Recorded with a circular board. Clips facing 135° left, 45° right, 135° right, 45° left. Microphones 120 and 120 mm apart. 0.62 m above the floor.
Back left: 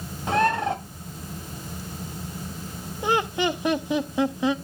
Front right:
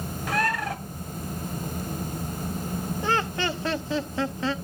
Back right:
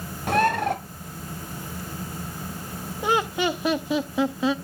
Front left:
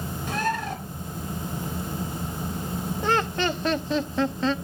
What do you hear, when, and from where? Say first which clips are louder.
0.3 s a bird: back left 5 dB, back right 7 dB; 160° right, 1.1 m
3.0 s laughter: back left 5 dB, back right 2 dB; 170° left, 0.6 m